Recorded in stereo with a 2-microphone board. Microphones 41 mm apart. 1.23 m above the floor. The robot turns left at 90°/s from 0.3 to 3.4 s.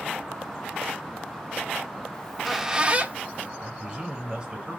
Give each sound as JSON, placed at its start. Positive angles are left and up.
{"t": 2.1, "sound": "a squeak", "azimuth_deg": 25, "distance_m": 0.6}
{"t": 3.6, "sound": "a man speaking", "side_deg": -20, "distance_m": 3.0}